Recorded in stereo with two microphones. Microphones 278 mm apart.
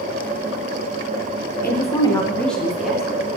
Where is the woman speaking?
35° left (ahead or behind), 1.0 m; by 3.2 s 5° right (ahead or behind), 3 m.